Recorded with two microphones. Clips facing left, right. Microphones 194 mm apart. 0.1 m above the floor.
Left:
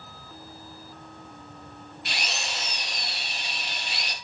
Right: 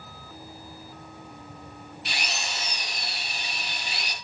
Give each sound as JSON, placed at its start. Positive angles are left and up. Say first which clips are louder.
{"t": 2.0, "sound": "a drill", "louder": "even", "side_deg": 0, "distance_m": 2.0}